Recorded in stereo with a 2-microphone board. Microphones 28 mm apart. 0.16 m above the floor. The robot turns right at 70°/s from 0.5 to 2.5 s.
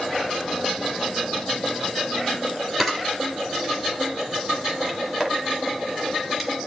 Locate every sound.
2.8 s a camera shutter: 5° left (ahead or behind), 3.5 m